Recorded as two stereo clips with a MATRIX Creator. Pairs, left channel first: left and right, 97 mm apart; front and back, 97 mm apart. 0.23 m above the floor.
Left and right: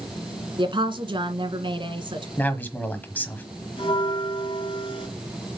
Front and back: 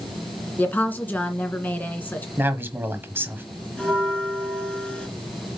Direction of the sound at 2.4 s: 140° left.